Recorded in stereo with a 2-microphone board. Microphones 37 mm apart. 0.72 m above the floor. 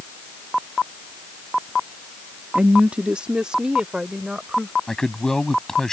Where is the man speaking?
10° left (ahead or behind).